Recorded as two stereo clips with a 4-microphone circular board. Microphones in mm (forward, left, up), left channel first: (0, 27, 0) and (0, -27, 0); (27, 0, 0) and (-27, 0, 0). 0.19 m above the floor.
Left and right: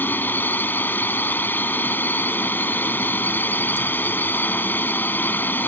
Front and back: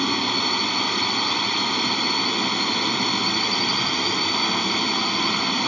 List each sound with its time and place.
0.0 s a drone: 85° left